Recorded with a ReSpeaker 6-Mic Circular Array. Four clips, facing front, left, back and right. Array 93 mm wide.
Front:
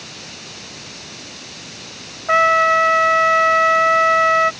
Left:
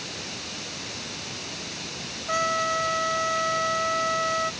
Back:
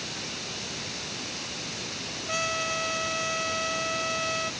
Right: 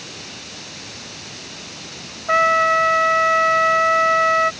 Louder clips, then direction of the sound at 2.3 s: Right 10 dB, front 18 dB; 30° right.